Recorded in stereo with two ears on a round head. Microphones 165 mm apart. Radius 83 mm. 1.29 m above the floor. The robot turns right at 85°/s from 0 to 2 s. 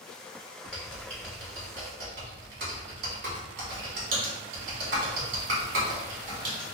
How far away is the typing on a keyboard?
About 1.6 m.